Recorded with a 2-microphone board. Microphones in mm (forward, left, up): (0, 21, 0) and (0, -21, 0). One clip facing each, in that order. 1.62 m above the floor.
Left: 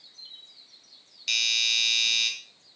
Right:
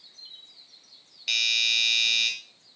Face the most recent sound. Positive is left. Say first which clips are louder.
# right 1 dB
turn(degrees=-10)  # may be behind; listen again after turning